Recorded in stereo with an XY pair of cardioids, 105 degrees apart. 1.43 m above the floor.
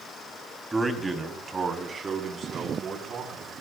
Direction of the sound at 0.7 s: 20° right.